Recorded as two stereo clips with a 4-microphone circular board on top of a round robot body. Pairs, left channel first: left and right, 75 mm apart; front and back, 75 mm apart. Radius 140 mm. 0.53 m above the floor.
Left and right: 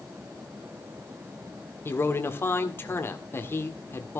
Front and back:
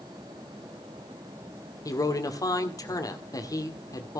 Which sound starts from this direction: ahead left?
A man speaking, at 1.9 s.